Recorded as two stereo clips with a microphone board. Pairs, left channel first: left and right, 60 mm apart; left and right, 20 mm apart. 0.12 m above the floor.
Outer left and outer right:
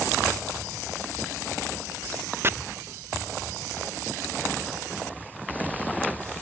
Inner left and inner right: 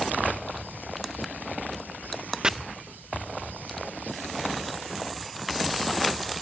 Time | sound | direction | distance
2.4 | chopping | 40° right (ahead or behind) | ?